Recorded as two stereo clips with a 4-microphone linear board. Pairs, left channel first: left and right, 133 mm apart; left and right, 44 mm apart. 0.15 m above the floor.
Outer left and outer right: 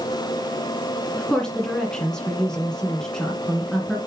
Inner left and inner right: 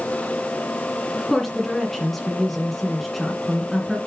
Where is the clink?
No clink in this recording.